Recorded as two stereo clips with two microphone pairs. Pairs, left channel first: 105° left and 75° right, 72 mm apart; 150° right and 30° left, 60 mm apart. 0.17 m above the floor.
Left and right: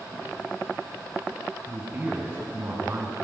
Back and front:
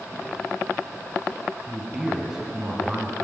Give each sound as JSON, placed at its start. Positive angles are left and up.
{"t": 1.7, "sound": "a man speaking", "azimuth_deg": -35, "distance_m": 1.8}